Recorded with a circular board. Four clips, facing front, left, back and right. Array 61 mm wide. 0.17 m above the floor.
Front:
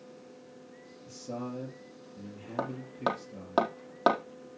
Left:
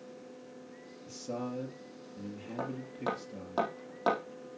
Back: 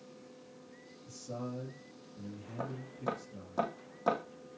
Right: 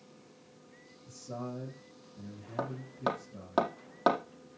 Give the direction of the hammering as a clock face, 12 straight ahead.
1 o'clock.